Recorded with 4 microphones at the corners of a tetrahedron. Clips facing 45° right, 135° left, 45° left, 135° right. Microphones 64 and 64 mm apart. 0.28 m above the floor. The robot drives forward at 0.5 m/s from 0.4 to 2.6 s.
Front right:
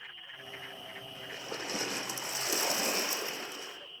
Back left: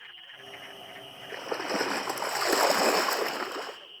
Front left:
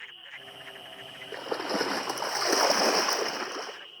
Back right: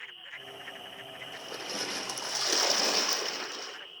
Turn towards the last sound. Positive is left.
turn(degrees=100)